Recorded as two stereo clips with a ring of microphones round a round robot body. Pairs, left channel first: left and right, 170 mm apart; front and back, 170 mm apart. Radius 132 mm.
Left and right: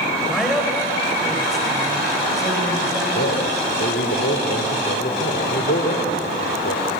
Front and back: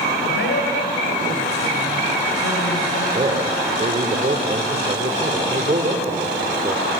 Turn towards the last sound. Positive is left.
turn(degrees=125)